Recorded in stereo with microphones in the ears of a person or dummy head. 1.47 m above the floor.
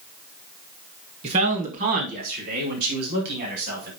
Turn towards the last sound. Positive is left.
turn(degrees=-65)  # may be behind; listen again after turning